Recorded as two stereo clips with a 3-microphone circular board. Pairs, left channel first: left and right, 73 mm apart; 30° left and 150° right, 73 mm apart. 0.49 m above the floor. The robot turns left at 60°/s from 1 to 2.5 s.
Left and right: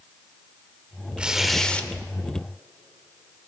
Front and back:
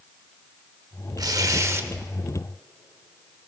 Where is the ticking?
I don't hear ticking.